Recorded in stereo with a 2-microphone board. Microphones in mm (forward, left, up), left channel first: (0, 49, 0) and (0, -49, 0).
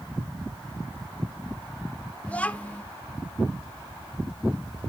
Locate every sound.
2.3 s a child speaking: 15° left (ahead or behind), 0.7 m